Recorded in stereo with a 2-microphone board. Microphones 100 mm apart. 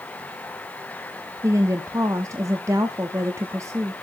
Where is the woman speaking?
30° right (ahead or behind), 1.0 m.